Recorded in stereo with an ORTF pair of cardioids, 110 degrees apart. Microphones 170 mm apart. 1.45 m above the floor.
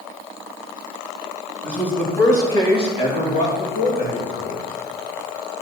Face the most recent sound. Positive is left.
turn(degrees=70)